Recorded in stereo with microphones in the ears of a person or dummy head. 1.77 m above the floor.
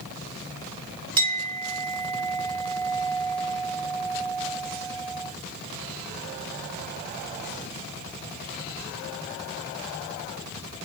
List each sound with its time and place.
1.2 s a clink: 20° right (ahead or behind), 1.0 m